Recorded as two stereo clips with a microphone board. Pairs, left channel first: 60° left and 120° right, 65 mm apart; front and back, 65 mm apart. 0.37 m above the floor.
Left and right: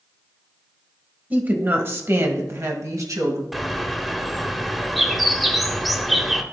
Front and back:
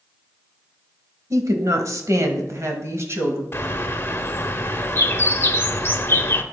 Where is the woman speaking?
Straight behind, 1.4 m; by 3.4 s 135° right, 1.9 m.